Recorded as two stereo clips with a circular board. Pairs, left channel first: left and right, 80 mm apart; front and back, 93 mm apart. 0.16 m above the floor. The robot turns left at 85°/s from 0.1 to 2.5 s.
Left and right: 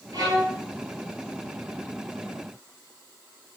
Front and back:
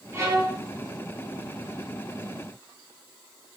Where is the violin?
120° right, 0.9 m; by 0.6 s 160° right, 0.9 m.